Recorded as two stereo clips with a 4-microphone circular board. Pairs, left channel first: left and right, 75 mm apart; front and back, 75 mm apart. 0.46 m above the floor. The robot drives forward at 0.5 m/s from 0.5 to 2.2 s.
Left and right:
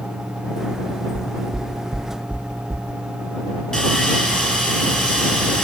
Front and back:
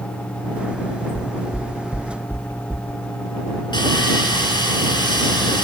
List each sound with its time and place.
1.1 s knocking: 55° right, 0.6 m; by 2.9 s 115° right, 0.6 m
3.7 s sawing: 10° left, 4.5 m